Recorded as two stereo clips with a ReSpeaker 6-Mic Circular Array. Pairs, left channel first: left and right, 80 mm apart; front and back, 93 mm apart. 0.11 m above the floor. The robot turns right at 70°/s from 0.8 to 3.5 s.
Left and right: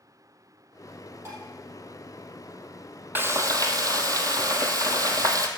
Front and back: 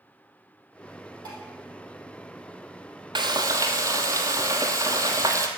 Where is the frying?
155° right, 1.0 m; by 5.5 s 130° right, 1.0 m.